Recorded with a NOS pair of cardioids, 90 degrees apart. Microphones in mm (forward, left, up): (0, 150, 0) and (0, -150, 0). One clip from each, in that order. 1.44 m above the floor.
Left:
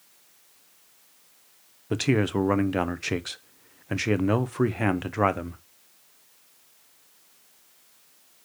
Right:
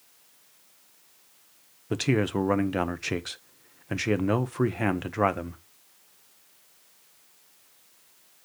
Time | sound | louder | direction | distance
1.9 | a man speaking | left 1 dB | 5° left | 0.7 m